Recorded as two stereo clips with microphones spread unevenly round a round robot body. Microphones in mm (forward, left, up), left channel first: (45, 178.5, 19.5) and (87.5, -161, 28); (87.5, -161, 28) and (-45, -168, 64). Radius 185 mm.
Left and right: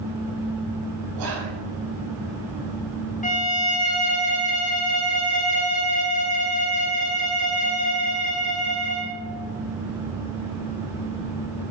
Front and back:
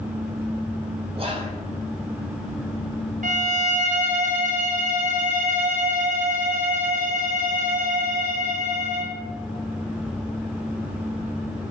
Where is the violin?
170° left, 1.2 m.